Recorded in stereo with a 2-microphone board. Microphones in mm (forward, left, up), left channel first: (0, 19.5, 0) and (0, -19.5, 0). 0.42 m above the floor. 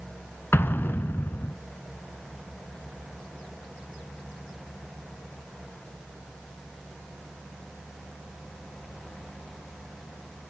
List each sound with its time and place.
0.5 s an explosion: 70° left (ahead or behind), 0.6 m